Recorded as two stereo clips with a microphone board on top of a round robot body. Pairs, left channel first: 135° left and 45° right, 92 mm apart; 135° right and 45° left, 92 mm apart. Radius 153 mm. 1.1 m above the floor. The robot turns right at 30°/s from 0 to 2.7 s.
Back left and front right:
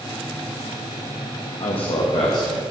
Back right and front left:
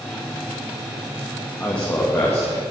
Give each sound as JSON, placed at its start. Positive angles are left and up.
{"t": 1.6, "sound": "a man speaking", "azimuth_deg": 140, "distance_m": 2.0}